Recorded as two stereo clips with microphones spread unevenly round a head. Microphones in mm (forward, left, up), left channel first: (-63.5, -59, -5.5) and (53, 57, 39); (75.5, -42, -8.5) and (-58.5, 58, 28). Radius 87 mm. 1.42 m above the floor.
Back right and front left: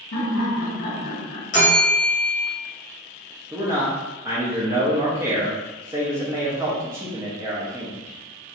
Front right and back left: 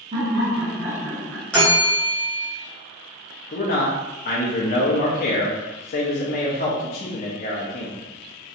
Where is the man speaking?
35° right, 0.6 m.